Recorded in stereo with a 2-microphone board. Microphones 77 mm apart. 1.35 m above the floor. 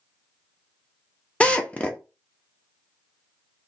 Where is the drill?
15° left (ahead or behind), 0.6 m.